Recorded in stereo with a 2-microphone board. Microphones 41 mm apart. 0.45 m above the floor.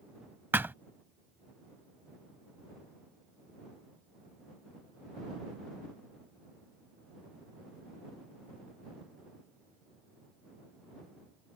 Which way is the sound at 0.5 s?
60° right (ahead or behind).